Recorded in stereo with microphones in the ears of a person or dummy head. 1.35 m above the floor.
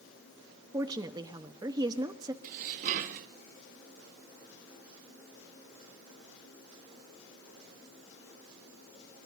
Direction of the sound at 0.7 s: 20° right (ahead or behind).